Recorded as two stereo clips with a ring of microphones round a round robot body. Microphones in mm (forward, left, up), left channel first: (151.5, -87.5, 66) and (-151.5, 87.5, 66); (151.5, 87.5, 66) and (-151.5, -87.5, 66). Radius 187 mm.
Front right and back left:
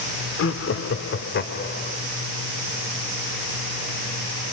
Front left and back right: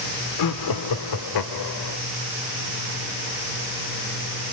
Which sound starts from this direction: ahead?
Laughter, at 0.4 s.